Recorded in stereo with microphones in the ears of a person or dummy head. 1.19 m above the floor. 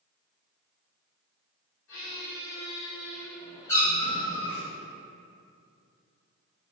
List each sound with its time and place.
1.9 s a squeak: 90° left, 1.3 m
3.7 s a cat meowing: 10° left (ahead or behind), 0.7 m